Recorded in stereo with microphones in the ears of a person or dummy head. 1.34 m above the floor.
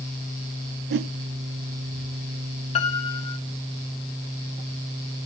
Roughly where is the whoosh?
Right.